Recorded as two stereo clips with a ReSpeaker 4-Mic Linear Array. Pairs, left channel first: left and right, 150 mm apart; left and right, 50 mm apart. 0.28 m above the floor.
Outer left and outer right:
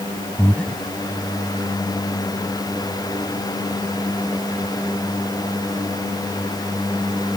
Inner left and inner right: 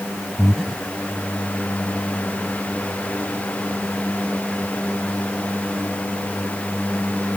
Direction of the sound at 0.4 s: 10° left (ahead or behind).